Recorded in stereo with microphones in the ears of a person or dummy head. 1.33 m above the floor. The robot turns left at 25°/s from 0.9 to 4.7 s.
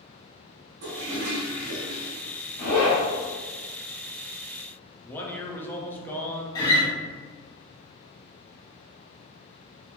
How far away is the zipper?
About 1.2 m.